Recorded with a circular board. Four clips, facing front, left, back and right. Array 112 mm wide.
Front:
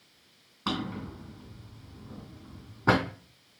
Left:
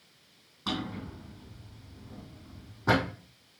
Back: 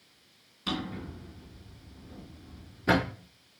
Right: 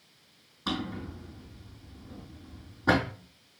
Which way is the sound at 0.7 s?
Straight ahead.